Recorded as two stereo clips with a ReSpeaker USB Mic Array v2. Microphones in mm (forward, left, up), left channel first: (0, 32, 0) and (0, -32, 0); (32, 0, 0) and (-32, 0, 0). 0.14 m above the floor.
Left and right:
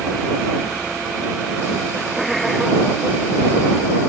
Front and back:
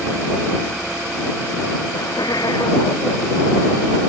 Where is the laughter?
Straight ahead.